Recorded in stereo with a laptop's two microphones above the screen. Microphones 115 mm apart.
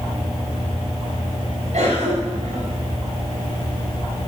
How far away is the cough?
About 4 m.